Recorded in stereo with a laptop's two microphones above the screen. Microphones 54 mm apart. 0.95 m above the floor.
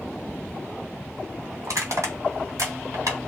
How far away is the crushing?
About 2.0 m.